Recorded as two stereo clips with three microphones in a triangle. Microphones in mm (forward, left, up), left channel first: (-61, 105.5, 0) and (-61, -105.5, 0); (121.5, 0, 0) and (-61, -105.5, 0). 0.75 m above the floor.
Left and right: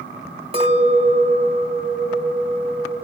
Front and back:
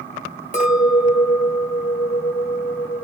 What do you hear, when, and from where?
0.5 s a clink: 25° right, 1.6 m